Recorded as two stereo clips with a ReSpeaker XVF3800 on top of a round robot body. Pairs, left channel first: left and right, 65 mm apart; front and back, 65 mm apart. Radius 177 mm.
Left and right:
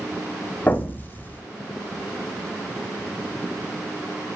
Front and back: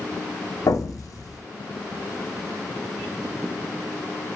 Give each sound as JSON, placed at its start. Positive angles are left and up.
{"t": 0.7, "sound": "an explosion", "azimuth_deg": 25, "distance_m": 0.6}